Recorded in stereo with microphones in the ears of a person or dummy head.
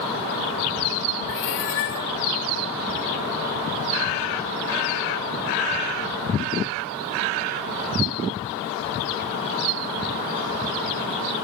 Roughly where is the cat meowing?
Left.